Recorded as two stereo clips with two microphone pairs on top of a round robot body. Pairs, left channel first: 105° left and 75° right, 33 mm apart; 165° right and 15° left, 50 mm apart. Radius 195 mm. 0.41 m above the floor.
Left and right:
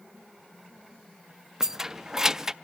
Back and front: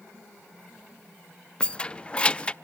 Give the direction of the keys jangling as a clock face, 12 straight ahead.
4 o'clock.